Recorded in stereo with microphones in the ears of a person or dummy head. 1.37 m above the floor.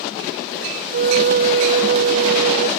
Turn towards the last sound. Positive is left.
turn(degrees=-60)  # may be behind; listen again after turning